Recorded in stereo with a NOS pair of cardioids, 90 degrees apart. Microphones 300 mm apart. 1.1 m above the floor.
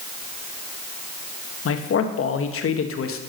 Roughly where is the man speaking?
Ahead left.